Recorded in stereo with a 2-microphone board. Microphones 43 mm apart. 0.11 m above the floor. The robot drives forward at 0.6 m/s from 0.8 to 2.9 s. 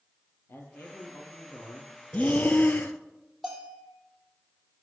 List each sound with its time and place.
0.5 s a man speaking: 60° left (ahead or behind), 3 m; by 1.9 s 55° left (ahead or behind), 3.5 m
2.1 s breathing: 35° left (ahead or behind), 0.9 m; by 3.0 s 50° left (ahead or behind), 0.7 m
3.4 s a bell: 5° right (ahead or behind), 3 m